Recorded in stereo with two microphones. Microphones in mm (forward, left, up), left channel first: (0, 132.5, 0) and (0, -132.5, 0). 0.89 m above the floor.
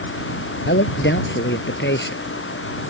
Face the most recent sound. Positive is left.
turn(degrees=45)  # may be behind; listen again after turning